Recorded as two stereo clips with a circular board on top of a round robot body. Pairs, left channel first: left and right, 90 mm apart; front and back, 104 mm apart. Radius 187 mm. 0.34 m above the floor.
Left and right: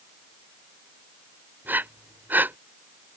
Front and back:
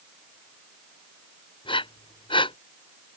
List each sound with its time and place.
1.6 s breathing: 25° right